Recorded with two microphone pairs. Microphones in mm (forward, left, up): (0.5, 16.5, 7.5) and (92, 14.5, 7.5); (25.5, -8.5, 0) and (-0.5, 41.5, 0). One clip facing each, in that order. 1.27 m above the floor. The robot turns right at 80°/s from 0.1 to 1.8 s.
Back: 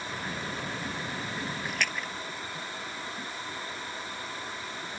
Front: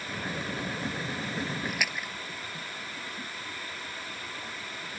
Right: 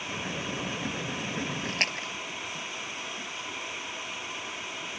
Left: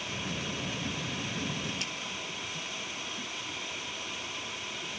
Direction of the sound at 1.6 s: 95° right.